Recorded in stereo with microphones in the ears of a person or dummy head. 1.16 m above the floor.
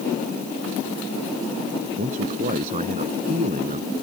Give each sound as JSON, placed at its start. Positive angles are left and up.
{"t": 2.0, "sound": "a man speaking", "side_deg": -45}